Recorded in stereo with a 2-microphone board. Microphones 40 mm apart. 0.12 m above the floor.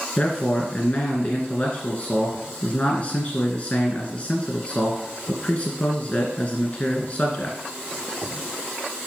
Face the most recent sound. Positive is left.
turn(degrees=30)  # may be behind; listen again after turning